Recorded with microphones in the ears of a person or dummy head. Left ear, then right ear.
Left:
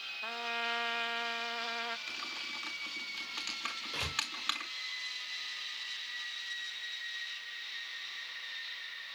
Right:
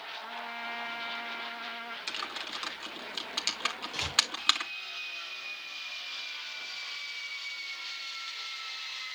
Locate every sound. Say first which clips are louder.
0.2 s a trumpet: left 5 dB; 25° left (ahead or behind), 0.6 m
2.1 s typing on a keyboard: right 3 dB; 25° right (ahead or behind), 1.2 m
3.9 s a door slam: right 2 dB; 25° left (ahead or behind), 2.5 m